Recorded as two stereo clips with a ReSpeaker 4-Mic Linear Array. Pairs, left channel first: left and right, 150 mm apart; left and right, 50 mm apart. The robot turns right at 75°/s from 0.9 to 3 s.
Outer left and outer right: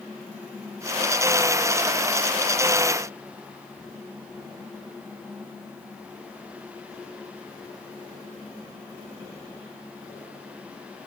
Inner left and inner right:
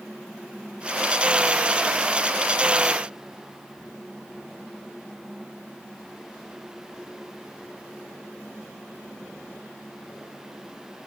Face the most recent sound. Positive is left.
No sound to turn to.